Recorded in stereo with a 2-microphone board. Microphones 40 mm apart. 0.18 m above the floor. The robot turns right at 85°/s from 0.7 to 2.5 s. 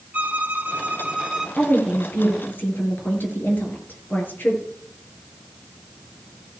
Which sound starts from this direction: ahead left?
A woman speaking, at 1.6 s.